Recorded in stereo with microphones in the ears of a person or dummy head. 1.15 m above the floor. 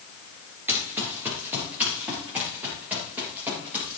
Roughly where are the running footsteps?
Centre.